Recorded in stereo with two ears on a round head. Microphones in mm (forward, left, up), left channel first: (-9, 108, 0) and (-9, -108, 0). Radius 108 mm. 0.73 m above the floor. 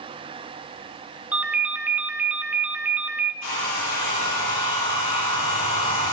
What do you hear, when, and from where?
1.3 s a ringtone: 5° right (ahead or behind), 1.3 m
3.4 s a hair dryer: 75° left (ahead or behind), 8.5 m